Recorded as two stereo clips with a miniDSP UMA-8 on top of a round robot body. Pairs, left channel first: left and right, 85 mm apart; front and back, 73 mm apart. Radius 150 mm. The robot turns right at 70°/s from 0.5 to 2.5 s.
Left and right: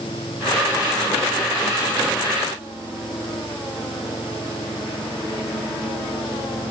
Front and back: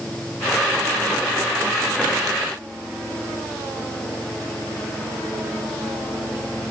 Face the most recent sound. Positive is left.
No sound to turn to.